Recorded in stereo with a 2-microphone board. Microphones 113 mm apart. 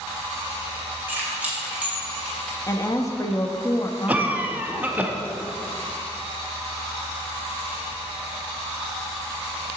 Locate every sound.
1.1 s keys jangling: 20° right (ahead or behind), 2.5 m; by 2.6 s centre (ahead or behind), 3 m
2.7 s a woman speaking: 30° left (ahead or behind), 0.9 m
4.1 s a cough: 15° right (ahead or behind), 1.0 m